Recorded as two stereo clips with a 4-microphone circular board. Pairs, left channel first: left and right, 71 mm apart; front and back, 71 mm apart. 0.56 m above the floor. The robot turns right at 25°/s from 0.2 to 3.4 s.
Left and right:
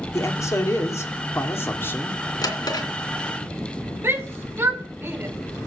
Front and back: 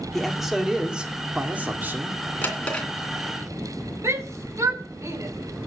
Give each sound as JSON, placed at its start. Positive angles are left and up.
{"t": 0.1, "sound": "a man speaking", "azimuth_deg": 90, "distance_m": 1.7}
{"t": 2.4, "sound": "a drawer", "azimuth_deg": 65, "distance_m": 2.5}
{"t": 4.0, "sound": "a shout", "azimuth_deg": -140, "distance_m": 3.0}